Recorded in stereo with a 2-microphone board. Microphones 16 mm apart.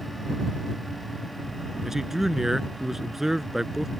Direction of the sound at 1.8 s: 25° right (ahead or behind).